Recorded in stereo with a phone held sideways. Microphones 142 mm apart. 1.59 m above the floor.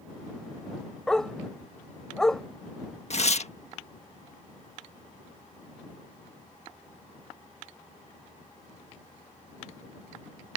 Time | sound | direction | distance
1.1 | a dog barking | 5° left (ahead or behind) | ?
3.1 | tearing paper | 50° left (ahead or behind) | ?